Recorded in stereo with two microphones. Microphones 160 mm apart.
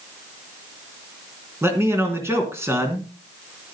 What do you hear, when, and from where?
1.6 s a man speaking: 15° right (ahead or behind), 3 m